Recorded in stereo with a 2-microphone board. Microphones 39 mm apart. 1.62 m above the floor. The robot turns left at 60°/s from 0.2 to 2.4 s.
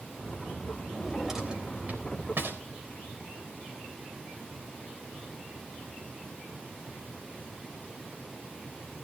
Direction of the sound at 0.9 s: 15° left (ahead or behind).